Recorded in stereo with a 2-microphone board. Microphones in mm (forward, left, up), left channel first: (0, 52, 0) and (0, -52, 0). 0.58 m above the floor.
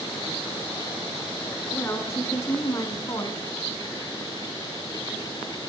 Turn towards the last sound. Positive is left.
turn(degrees=40)  # may be behind; listen again after turning